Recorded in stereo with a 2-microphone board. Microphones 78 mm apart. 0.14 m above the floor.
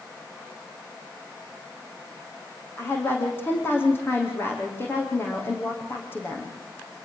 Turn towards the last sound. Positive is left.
turn(degrees=25)  # may be behind; listen again after turning